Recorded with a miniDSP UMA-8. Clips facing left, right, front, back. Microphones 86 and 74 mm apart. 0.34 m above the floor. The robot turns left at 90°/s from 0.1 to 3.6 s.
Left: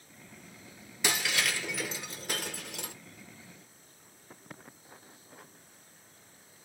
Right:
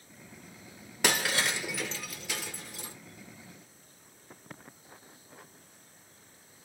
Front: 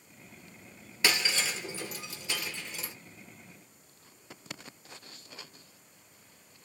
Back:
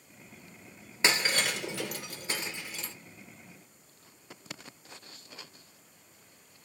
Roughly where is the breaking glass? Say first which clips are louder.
Right 3 dB, back 2 dB; behind right.